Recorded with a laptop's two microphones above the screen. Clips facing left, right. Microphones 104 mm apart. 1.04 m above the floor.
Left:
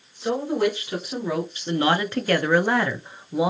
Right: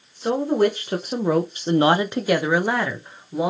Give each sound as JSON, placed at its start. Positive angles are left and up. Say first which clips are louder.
{"t": 0.2, "sound": "a woman speaking", "louder": "right 3 dB", "side_deg": -40, "distance_m": 1.0}